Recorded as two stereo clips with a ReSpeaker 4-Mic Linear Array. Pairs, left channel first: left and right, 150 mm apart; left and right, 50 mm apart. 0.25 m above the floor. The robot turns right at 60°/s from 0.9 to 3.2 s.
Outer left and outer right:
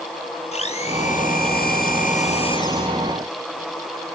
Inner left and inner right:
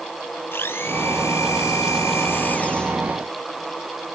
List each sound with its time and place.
0.5 s a blender: 45° left, 1.9 m; by 3.0 s 175° left, 1.9 m